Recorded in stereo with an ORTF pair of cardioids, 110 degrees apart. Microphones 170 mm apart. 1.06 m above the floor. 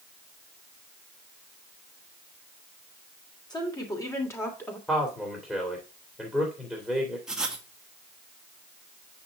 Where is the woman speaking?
25° left, 3 m; by 4.8 s 10° left, 2.5 m.